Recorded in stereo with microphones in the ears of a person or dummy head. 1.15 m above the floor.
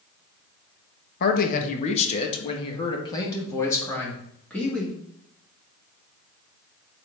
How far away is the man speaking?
About 1.4 m.